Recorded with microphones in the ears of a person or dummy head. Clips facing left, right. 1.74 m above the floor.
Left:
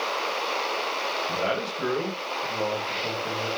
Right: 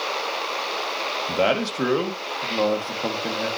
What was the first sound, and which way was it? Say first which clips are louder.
A man speaking: right 8 dB; 90° right.